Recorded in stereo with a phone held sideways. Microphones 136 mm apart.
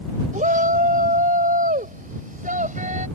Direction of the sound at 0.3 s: 70° right (ahead or behind).